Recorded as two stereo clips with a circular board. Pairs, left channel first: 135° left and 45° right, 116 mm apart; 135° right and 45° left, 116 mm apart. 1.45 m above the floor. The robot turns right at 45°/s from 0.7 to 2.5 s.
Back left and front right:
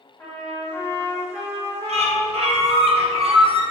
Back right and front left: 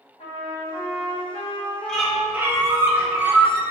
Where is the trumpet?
155° right, 1.0 m; by 2.9 s 70° right, 1.0 m.